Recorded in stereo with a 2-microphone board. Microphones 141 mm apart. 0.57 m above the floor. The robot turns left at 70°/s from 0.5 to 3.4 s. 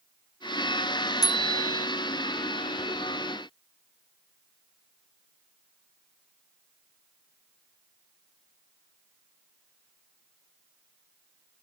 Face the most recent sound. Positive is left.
turn(degrees=0)